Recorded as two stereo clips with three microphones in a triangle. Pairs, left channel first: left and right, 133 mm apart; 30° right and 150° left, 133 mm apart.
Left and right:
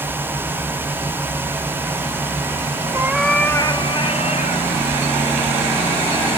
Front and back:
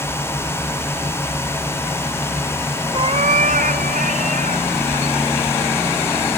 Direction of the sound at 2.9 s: 155° right.